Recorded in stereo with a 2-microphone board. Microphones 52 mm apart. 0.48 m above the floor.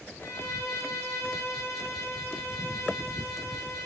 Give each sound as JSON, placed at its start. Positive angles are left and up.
{"t": 0.2, "sound": "a violin", "side_deg": 75, "distance_m": 6.0}